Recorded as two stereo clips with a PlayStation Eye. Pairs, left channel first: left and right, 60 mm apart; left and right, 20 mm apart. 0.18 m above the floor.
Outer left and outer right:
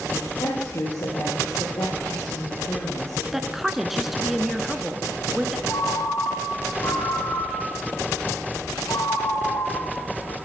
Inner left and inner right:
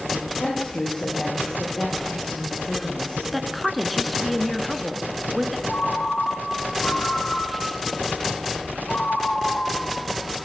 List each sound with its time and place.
0.4 s a woman speaking: 75° left (ahead or behind), 8.5 m
3.3 s a woman speaking: 5° right (ahead or behind), 2.5 m
5.7 s a ringtone: 75° left (ahead or behind), 5.5 m